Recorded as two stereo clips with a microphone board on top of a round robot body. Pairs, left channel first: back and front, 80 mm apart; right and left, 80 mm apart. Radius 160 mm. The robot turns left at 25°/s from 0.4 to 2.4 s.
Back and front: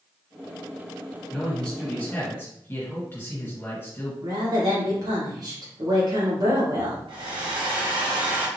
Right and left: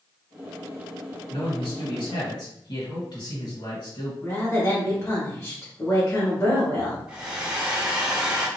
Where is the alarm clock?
I don't hear an alarm clock.